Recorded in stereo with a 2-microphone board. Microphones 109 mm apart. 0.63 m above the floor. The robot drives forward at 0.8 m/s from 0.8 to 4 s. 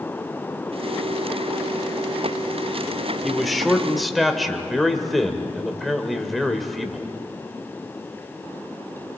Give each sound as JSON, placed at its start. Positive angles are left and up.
{"t": 3.2, "sound": "a man speaking", "side_deg": 0, "distance_m": 1.3}